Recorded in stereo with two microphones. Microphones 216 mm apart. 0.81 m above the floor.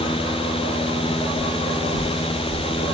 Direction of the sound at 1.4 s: 25° right (ahead or behind).